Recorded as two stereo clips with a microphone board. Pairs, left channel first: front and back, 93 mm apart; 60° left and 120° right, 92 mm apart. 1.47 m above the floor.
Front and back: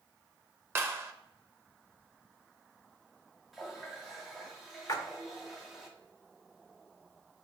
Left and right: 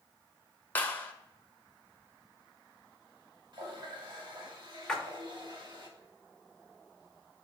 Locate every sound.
0.8 s a clap: 125° left, 0.8 m
3.5 s a running tap: 90° right, 1.7 m
4.9 s a splash: 20° right, 1.1 m